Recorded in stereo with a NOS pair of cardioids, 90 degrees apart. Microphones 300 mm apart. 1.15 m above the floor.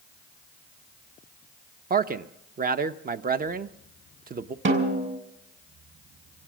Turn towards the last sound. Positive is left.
turn(degrees=-40)